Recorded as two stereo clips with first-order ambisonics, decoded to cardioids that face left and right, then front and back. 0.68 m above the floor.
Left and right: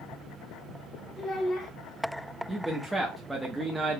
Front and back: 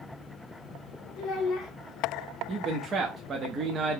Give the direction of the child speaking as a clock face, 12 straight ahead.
11 o'clock.